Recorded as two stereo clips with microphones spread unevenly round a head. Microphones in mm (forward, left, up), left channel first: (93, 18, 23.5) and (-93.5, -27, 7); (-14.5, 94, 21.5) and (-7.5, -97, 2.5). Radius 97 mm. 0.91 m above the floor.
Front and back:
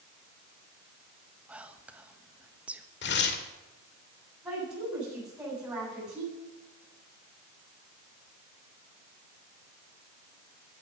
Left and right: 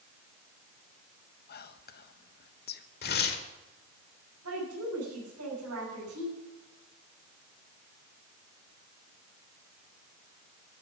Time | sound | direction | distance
1.5 | whispering | 115° left | 1.2 m
3.0 | tearing paper | 50° left | 1.9 m
4.4 | a woman speaking | 85° right | 8 m